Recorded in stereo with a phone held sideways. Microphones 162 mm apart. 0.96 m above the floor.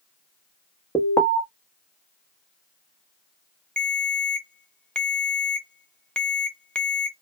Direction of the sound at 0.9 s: 15° left (ahead or behind).